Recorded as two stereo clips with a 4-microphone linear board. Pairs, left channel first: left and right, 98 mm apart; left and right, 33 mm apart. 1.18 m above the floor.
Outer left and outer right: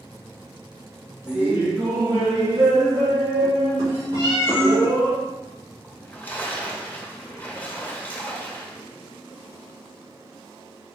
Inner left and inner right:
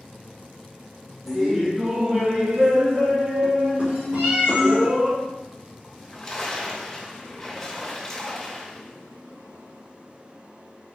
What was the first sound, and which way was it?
Laughter, 10° right (ahead or behind).